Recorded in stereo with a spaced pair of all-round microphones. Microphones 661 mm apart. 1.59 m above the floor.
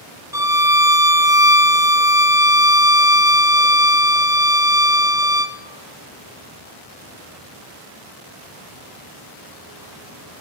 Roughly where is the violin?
Centre.